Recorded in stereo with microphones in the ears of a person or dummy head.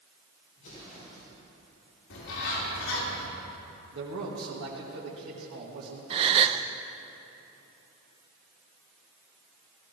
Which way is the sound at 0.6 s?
40° left (ahead or behind).